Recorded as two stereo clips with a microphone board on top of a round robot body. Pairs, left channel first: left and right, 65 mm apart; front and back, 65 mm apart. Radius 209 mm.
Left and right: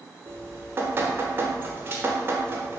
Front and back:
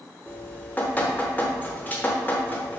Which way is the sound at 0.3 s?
55° right.